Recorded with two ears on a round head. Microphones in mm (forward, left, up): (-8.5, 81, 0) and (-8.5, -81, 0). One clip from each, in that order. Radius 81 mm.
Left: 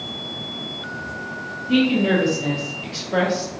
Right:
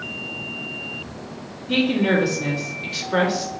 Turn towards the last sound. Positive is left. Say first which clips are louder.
# left 1 dB
turn(degrees=-30)  # may be behind; listen again after turning